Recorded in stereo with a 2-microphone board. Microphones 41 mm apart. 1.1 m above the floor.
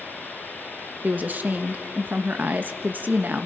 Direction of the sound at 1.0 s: 45° right (ahead or behind).